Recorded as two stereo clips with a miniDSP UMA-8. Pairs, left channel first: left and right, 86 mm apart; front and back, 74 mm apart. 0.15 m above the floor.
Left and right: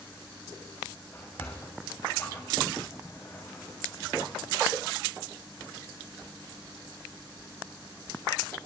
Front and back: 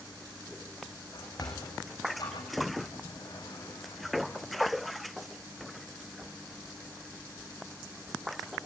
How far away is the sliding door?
About 5 m.